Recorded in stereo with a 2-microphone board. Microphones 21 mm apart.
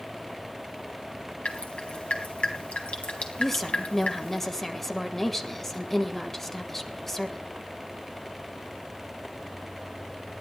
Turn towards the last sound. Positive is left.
turn(degrees=15)  # may be behind; listen again after turning